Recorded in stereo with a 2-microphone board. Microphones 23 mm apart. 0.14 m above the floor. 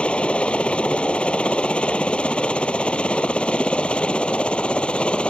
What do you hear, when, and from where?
0.0 s a helicopter: 65° left (ahead or behind); by 5.3 s 60° left (ahead or behind)